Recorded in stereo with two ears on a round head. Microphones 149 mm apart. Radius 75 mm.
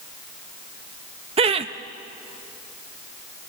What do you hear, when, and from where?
1.4 s laughter: 35° right (ahead or behind), 0.6 m